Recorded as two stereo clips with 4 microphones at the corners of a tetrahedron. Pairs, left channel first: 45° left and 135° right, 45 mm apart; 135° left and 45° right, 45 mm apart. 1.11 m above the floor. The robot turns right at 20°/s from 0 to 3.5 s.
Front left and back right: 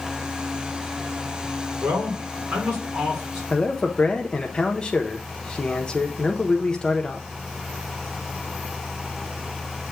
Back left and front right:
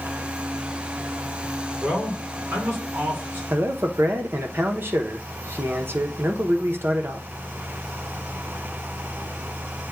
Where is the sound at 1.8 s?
95° right, 3 m; by 3.4 s 65° right, 3 m.